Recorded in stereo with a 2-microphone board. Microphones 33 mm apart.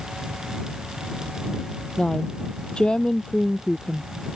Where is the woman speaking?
30° left (ahead or behind).